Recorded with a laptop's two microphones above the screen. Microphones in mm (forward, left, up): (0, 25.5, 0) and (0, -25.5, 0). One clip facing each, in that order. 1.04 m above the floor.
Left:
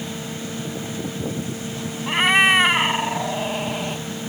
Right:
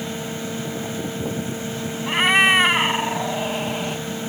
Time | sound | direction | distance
0.0 | a fan | 25° right (ahead or behind) | ?
2.1 | a cat meowing | centre (ahead or behind) | ?